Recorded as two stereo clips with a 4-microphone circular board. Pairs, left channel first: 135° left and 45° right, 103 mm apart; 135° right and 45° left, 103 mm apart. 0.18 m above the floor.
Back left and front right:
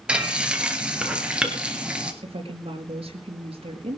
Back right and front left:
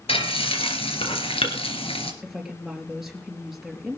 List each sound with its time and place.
0.1 s frying: 125° right, 2.5 m
2.2 s a woman speaking: 40° right, 4 m